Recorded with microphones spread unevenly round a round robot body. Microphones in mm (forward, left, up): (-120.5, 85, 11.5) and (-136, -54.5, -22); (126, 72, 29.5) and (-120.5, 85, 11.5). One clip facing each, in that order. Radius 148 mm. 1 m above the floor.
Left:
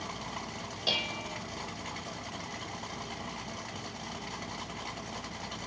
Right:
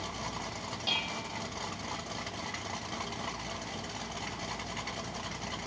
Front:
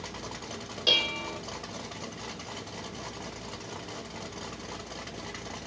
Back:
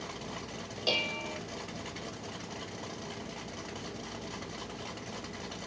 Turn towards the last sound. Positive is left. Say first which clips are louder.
# left 4 dB, front 1 dB
turn(degrees=65)